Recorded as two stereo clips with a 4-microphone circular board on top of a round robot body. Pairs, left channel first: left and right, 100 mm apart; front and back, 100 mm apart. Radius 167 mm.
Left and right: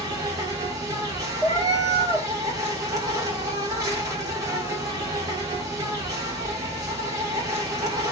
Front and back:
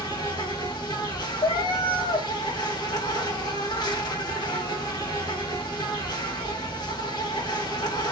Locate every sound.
0.0 s an insect: 40° right, 2.0 m
1.4 s a cat meowing: 35° right, 2 m